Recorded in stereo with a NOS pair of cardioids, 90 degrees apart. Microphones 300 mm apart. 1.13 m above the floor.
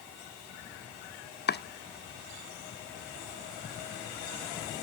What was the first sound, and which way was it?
Chopping, 40° left.